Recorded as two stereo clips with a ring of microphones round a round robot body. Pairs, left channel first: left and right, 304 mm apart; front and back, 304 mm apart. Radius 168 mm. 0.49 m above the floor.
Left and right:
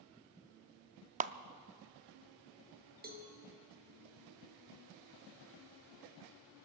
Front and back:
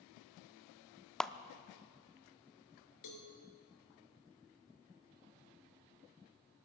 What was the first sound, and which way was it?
A clap, 85° right.